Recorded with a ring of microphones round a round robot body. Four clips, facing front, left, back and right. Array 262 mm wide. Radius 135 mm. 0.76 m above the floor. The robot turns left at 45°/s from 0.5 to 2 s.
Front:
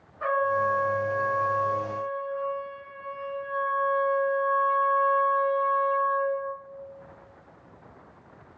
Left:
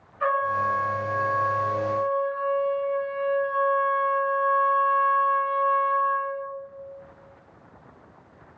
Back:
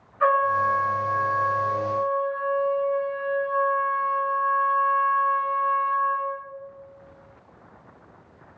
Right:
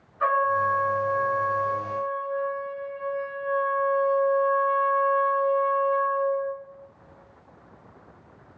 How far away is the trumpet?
About 3 m.